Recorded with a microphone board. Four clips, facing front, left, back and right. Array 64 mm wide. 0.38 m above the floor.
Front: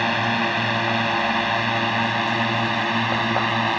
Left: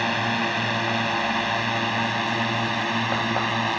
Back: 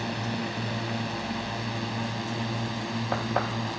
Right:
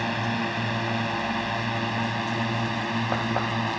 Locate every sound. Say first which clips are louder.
0.0 s a drone: left 3 dB, front 10 dB; 20° left; by 3.8 s 15° left